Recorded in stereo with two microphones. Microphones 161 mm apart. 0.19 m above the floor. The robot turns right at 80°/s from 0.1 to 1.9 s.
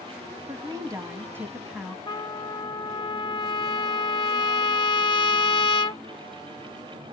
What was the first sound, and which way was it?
A woman speaking, 20° right (ahead or behind).